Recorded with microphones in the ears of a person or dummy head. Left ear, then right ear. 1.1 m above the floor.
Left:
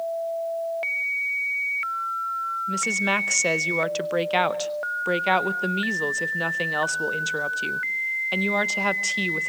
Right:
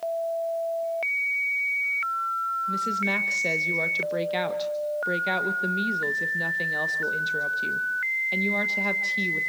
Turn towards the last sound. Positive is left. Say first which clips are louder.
# left 5 dB
turn(degrees=40)  # may be behind; listen again after turning